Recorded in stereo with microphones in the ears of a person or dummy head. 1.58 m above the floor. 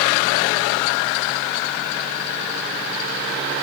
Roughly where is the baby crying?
I don't hear a baby crying.